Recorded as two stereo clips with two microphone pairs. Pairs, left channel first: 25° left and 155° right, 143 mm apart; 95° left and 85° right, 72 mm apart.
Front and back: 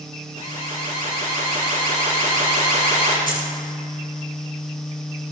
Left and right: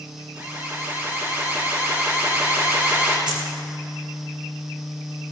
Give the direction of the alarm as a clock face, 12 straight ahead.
5 o'clock.